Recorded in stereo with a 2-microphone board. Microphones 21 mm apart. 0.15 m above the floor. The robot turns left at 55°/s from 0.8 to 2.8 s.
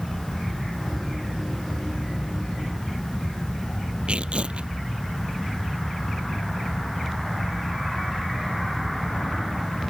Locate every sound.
4.1 s tearing paper: 75° right (ahead or behind)